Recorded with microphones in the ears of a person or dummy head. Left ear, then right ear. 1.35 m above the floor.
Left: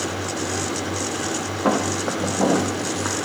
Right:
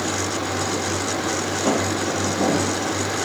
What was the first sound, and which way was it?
Footsteps, 70° left (ahead or behind).